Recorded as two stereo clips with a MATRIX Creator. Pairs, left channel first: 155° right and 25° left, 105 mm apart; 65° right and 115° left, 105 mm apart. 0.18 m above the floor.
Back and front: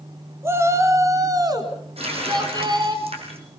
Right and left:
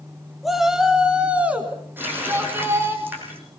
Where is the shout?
25° left, 1.6 m; by 3.0 s 50° left, 2.5 m.